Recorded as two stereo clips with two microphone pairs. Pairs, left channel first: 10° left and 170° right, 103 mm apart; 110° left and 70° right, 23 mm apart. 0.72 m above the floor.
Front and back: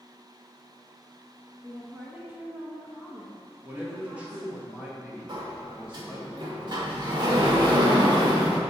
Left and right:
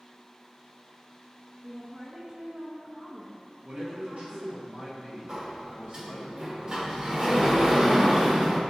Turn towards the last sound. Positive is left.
turn(degrees=-125)